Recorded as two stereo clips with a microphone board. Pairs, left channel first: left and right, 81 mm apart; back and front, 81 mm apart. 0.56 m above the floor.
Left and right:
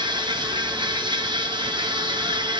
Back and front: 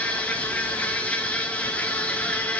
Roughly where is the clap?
I don't hear a clap.